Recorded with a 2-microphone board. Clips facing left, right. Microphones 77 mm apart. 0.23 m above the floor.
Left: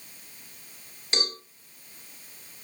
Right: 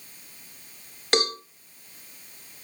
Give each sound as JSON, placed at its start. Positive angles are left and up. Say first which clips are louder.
{"t": 1.1, "sound": "a cowbell", "louder": "right 8 dB", "side_deg": -65, "distance_m": 1.9}